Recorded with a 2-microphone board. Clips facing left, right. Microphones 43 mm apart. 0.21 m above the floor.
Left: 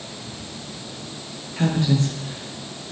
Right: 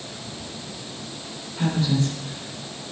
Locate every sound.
1.6 s a woman speaking: 70° left (ahead or behind), 4 m